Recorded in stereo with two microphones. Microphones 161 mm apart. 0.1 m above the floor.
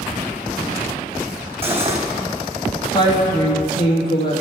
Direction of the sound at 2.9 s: 30° left (ahead or behind).